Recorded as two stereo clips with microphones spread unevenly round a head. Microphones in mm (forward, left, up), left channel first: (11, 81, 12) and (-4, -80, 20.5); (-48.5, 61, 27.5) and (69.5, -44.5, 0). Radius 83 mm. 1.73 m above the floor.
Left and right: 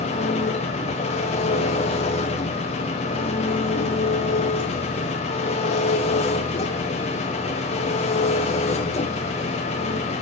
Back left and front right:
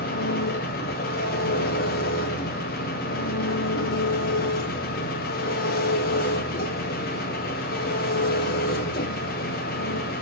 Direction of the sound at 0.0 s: 135° left.